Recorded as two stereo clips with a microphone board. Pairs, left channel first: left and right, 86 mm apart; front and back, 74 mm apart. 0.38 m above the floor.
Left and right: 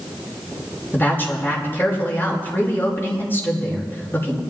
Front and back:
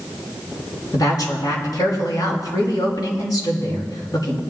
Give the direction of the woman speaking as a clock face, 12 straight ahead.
11 o'clock.